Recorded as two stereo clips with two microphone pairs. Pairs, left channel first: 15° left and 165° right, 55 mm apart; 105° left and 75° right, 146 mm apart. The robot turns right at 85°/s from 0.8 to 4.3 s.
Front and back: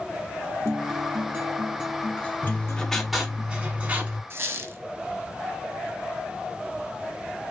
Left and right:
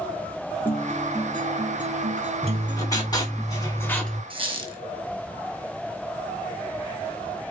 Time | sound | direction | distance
0.7 | a guitar | straight behind | 1.5 m
2.4 | writing | 40° left | 1.6 m
4.3 | a squeak | 130° right | 1.3 m